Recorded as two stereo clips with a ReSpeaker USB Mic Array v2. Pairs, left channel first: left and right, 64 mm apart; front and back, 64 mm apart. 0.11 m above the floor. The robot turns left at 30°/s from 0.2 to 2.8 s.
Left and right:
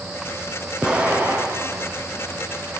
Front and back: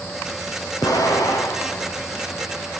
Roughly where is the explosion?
Ahead.